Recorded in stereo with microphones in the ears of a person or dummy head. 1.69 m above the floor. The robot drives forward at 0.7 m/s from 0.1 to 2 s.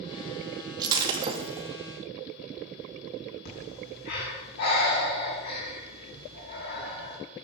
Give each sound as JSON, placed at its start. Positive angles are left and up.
{"t": 0.8, "sound": "breaking glass", "side_deg": -30, "distance_m": 1.6}
{"t": 3.5, "sound": "breathing", "side_deg": 55, "distance_m": 6.0}